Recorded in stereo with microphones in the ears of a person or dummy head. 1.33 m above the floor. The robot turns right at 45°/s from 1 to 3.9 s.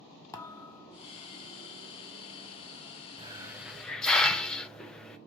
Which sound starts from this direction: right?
A hiss, at 3.2 s.